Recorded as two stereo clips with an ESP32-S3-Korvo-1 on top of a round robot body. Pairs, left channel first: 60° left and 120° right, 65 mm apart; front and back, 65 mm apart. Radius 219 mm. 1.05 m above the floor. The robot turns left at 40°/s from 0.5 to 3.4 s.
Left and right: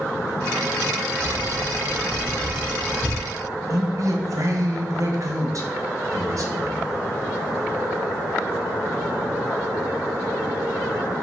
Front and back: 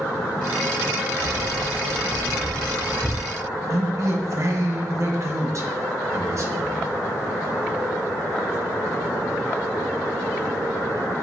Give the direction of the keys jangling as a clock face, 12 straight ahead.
7 o'clock.